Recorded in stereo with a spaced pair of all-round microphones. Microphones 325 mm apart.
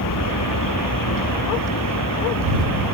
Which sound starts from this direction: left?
A vehicle, at 0.0 s.